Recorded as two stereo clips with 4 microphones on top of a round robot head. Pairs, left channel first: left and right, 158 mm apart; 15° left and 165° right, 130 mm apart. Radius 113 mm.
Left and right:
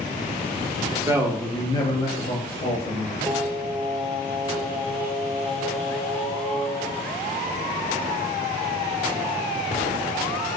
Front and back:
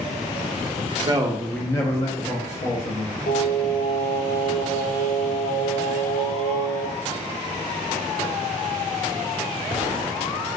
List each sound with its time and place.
0.8 s a man speaking: 145° right, 0.7 m; by 3.2 s 45° left, 1.6 m
3.3 s singing: 5° left, 0.7 m